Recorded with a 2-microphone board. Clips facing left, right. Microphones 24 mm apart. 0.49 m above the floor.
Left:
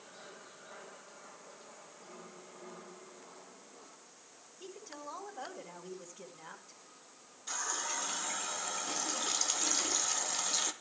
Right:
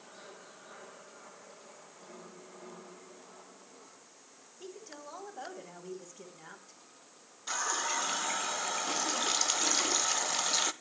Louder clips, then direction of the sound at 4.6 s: Even; 5° right (ahead or behind).